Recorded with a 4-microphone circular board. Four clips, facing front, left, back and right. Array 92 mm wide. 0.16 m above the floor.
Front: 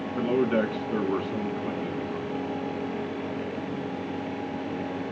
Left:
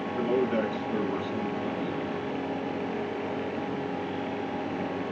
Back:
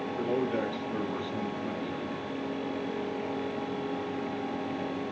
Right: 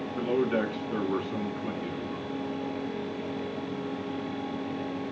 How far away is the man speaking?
About 2 m.